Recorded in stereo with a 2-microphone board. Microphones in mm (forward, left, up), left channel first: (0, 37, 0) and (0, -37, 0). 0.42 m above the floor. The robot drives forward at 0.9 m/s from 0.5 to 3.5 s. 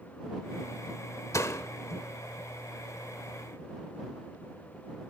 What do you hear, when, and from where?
1.3 s a door slam: 45° left (ahead or behind), 1.0 m; by 1.7 s 40° left (ahead or behind), 1.2 m